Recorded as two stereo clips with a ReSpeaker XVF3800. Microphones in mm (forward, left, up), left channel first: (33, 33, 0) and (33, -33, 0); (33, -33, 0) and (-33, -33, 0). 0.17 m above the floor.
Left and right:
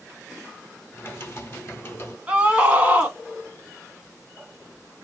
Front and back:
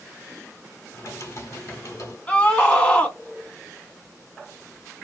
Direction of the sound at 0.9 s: 35° left.